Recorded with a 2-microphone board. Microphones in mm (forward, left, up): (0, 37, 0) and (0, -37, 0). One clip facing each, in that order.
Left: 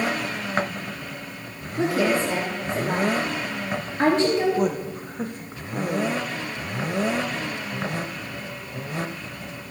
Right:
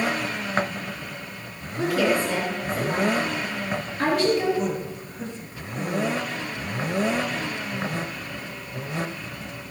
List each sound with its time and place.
1.8 s a woman speaking: 30° left (ahead or behind), 3 m
4.6 s a woman speaking: 55° left (ahead or behind), 1.4 m